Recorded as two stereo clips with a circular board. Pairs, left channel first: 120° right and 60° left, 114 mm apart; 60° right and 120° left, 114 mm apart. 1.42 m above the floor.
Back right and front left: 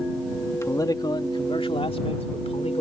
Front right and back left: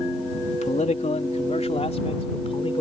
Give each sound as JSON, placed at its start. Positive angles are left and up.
{"t": 0.5, "sound": "a man speaking", "azimuth_deg": -55}